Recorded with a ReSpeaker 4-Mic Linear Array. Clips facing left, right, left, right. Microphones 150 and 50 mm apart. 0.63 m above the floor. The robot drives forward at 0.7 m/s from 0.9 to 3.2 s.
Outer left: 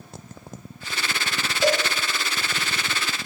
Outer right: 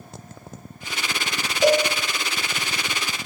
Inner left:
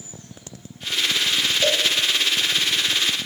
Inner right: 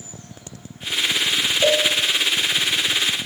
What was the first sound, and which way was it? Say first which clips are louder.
A cowbell: outer right 4 dB, inner right 5 dB; 15° right (ahead or behind).